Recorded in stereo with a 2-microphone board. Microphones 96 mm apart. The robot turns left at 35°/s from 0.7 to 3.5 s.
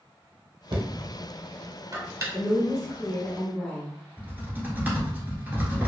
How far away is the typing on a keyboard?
About 1.2 m.